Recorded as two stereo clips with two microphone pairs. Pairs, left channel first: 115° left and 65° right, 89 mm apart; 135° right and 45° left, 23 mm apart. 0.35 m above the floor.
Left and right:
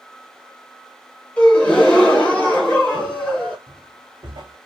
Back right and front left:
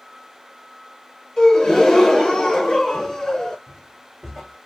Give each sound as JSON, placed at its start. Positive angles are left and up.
{"t": 1.4, "sound": "a gasp", "azimuth_deg": 175, "distance_m": 1.0}
{"t": 3.7, "sound": "footsteps", "azimuth_deg": -30, "distance_m": 1.0}